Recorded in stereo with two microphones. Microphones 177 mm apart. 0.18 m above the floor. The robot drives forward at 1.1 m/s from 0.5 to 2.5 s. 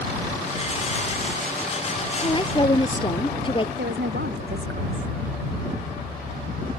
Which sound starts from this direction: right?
A woman speaking, at 3.8 s.